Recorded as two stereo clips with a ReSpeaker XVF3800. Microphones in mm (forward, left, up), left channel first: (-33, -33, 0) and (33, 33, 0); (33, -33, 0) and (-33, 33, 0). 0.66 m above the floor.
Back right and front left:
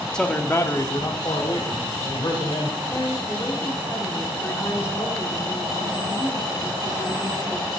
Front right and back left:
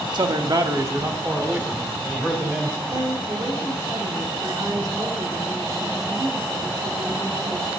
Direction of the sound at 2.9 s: 170° left.